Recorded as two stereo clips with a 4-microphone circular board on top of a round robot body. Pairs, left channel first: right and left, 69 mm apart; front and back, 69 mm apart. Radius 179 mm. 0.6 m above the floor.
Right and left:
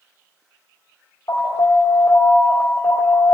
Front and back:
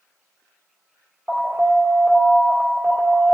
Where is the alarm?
120° right, 1.8 m.